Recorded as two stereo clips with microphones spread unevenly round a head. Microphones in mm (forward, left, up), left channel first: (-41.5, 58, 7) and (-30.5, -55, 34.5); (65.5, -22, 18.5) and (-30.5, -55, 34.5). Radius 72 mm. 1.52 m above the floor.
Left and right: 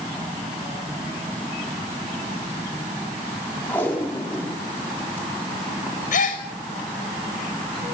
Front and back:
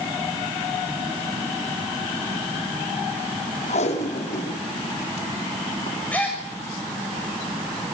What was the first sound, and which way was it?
Tape being pulled, 20° left.